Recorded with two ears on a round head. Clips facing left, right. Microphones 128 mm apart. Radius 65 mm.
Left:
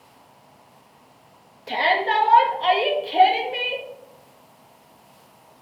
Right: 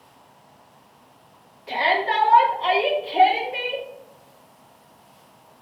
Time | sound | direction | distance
1.7 | a shout | 50° left (ahead or behind) | 1.4 m